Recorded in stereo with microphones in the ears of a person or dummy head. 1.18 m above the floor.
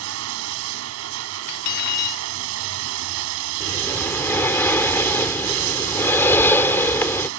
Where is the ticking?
No ticking in this recording.